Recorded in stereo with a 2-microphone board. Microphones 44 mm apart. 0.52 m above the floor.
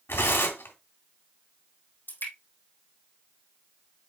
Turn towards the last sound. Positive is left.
turn(degrees=60)  # may be behind; listen again after turning